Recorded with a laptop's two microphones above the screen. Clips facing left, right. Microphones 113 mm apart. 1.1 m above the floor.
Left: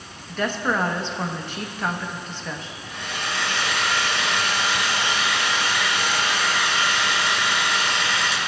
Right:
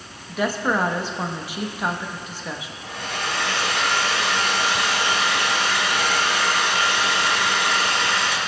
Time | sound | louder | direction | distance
0.3 | a woman speaking | right 2 dB | 10° right (ahead or behind) | 0.9 m
2.8 | a hair dryer | right 3 dB | 80° right | 2.5 m